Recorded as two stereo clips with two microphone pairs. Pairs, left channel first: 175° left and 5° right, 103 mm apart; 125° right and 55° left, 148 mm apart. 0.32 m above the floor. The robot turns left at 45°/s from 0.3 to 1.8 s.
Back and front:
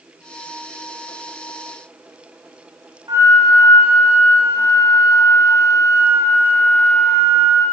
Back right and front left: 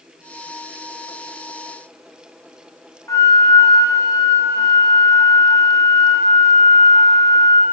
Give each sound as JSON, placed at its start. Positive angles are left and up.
{"t": 3.1, "sound": "a flute", "azimuth_deg": -55, "distance_m": 8.0}